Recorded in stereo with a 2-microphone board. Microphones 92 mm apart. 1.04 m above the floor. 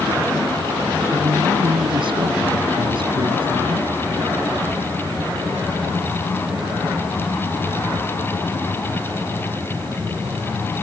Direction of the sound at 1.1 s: 65° right (ahead or behind).